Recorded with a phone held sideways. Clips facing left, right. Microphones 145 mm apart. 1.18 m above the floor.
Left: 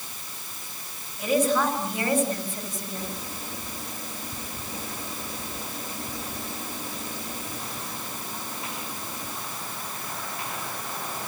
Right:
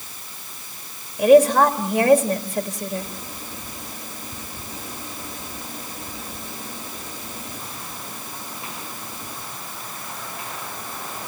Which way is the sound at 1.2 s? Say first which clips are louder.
Right 10 dB; 70° right (ahead or behind).